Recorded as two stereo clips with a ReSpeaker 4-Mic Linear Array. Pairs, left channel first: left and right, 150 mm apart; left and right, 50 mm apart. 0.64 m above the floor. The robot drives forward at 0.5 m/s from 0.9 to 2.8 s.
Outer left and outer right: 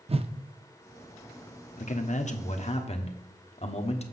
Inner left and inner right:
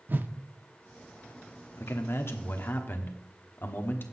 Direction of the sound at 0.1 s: 40° right (ahead or behind).